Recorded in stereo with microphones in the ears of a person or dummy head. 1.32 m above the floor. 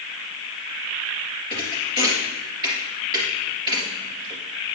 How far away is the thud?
About 3 m.